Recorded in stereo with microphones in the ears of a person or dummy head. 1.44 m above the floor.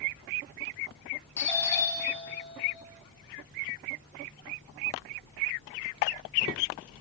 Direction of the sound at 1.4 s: 15° left (ahead or behind).